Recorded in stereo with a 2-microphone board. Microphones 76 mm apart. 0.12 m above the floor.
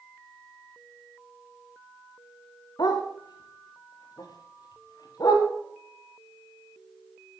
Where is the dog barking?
60° left (ahead or behind), 3.5 m; by 5.5 s 55° left (ahead or behind), 6 m.